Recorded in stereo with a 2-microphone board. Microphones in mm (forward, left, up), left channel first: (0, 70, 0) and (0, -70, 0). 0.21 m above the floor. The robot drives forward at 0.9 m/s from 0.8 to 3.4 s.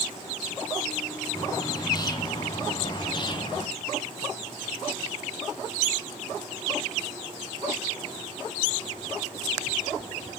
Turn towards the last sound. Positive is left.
turn(degrees=35)  # may be behind; listen again after turning